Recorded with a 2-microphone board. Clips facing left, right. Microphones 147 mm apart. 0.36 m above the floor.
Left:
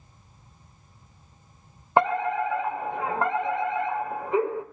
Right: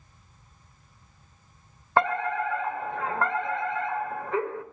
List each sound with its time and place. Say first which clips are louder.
2.0 s a fire alarm: left 2 dB; 20° left (ahead or behind), 2 m